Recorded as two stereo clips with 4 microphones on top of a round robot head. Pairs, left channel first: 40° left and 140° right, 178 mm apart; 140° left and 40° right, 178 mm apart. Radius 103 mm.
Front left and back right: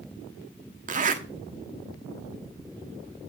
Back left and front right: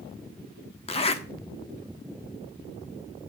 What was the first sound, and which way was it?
A zipper, 170° right.